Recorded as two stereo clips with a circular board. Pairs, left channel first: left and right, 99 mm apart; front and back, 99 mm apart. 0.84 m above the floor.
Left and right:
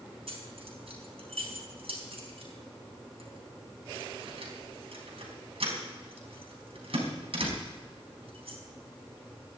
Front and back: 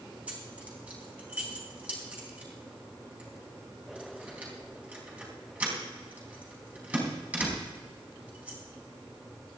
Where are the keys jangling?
105° right, 4 m.